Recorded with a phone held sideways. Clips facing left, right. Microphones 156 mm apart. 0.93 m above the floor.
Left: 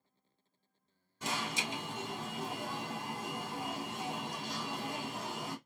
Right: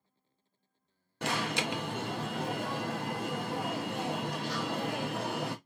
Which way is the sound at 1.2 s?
70° right (ahead or behind).